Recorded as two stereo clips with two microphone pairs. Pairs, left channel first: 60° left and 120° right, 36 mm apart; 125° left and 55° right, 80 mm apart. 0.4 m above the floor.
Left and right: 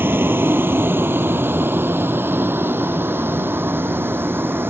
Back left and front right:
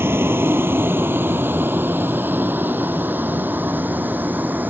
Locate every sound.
0.0 s a vehicle: 115° right; by 4.7 s 120° right